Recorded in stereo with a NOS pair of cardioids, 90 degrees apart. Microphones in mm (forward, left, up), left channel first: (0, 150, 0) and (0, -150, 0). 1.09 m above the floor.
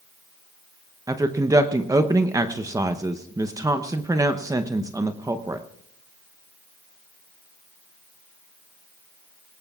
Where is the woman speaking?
10° right, 0.7 m.